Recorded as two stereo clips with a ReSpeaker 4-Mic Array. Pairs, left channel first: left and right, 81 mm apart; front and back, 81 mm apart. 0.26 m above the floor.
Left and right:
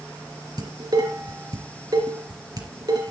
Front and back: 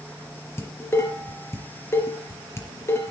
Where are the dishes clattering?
55° right, 3.5 m.